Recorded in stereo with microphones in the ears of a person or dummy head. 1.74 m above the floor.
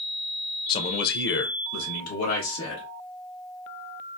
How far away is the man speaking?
About 0.5 m.